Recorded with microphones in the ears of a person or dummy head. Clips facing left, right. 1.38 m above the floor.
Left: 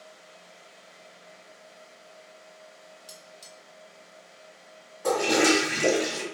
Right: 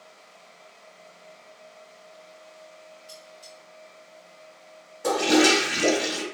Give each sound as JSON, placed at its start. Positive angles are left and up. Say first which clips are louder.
{"t": 3.1, "sound": "cutlery clinking", "louder": "right 3 dB", "side_deg": 25, "distance_m": 1.3}
{"t": 5.0, "sound": "a toilet flushing", "louder": "right 3 dB", "side_deg": -45, "distance_m": 1.9}